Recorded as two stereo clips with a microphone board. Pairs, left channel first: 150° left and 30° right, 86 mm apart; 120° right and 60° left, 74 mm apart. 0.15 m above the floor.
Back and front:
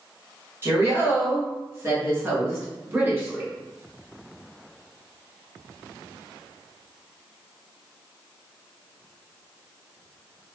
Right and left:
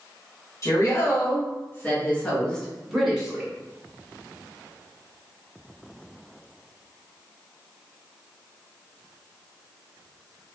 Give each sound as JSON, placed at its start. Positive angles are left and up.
{"t": 0.6, "sound": "a woman speaking", "azimuth_deg": -85, "distance_m": 1.6}